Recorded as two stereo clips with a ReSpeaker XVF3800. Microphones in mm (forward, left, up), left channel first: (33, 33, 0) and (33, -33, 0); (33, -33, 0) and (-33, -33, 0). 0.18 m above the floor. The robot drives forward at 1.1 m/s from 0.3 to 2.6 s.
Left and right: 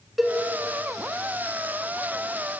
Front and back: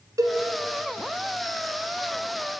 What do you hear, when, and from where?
0.2 s a cowbell: 175° right, 0.5 m